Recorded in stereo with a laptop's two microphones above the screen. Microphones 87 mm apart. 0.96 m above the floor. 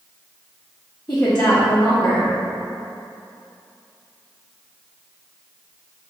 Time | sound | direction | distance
1.1 | a woman speaking | 30° left (ahead or behind) | 1.0 m